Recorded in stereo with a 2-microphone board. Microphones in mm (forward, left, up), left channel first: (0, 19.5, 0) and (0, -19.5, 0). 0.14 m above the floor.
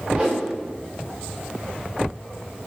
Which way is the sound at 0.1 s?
25° right (ahead or behind).